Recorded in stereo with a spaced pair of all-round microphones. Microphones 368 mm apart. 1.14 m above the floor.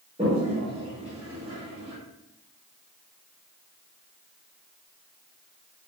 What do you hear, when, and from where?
0.2 s a toilet flushing: 15° right (ahead or behind), 1.4 m